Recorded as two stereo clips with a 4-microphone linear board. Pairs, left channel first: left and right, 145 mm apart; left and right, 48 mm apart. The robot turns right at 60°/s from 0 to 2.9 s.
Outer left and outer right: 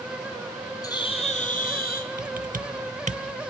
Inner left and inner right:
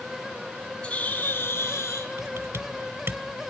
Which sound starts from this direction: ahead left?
A bird, at 0.8 s.